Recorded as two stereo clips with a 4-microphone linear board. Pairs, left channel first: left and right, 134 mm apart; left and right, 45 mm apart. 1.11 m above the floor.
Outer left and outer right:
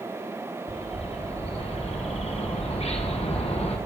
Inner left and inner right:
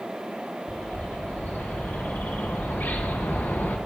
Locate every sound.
0.7 s a bird: 50° left (ahead or behind), 1.0 m